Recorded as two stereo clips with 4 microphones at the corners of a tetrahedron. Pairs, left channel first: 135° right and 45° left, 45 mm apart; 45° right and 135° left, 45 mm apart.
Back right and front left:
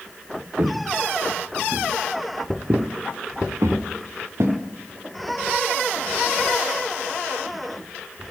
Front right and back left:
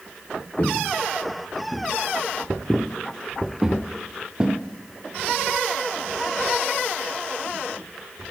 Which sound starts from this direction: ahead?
Footsteps, at 0.6 s.